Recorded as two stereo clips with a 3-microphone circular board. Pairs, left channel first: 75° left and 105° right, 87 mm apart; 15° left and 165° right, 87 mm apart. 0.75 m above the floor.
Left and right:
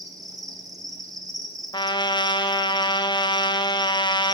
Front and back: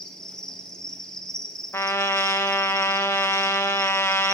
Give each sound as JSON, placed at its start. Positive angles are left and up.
{"t": 0.0, "sound": "an insect", "azimuth_deg": -65, "distance_m": 1.5}
{"t": 1.7, "sound": "a trumpet", "azimuth_deg": 70, "distance_m": 0.7}